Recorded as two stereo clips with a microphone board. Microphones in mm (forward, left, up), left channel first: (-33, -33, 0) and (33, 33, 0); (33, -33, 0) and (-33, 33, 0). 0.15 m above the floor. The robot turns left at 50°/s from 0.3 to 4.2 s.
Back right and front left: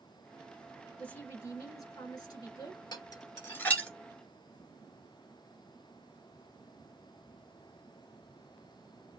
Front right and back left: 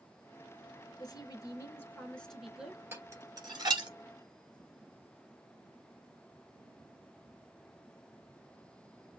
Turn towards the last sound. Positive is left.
turn(degrees=130)